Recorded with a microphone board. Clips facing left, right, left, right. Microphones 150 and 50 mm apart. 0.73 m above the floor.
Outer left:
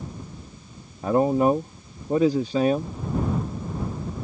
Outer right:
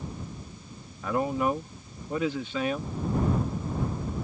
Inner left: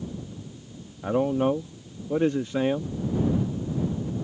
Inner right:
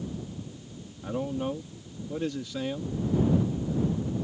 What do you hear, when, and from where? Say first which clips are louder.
1.0 s a man speaking: outer left 7 dB, inner left 8 dB; 35° left (ahead or behind)